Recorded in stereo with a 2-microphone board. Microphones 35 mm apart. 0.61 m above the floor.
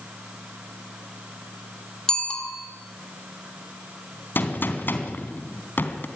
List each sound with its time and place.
2.1 s a bicycle bell: 25° left (ahead or behind), 3.5 m
4.3 s a gunshot: 80° left, 3 m